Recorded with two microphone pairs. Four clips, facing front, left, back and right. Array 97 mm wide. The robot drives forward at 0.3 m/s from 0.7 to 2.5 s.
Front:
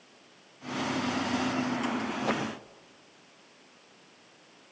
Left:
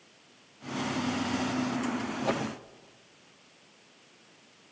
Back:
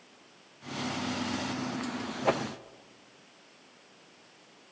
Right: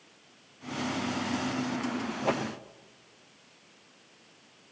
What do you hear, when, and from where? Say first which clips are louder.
2.2 s a whoosh: right 1 dB, back 4 dB; 160° right, 0.9 m